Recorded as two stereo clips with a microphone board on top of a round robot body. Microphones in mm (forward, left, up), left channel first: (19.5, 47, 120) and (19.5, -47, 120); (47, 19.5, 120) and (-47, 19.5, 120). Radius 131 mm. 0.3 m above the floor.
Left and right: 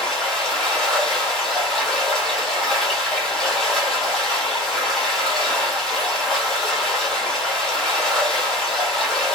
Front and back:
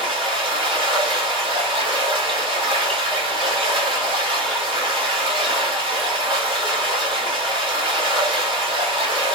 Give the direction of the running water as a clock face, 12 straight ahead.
6 o'clock.